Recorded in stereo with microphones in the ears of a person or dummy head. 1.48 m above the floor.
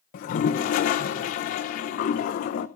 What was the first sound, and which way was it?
A toilet flushing, 50° left (ahead or behind).